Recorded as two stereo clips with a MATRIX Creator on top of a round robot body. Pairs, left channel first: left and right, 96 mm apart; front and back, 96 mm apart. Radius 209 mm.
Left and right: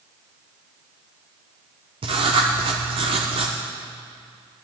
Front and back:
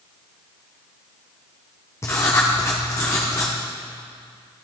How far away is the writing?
About 0.6 m.